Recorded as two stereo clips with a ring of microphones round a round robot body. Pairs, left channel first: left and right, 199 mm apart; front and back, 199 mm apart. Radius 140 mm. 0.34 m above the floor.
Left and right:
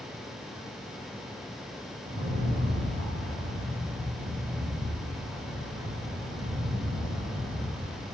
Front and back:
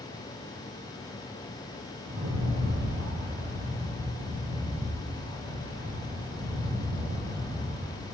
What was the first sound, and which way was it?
A rattle, 125° right.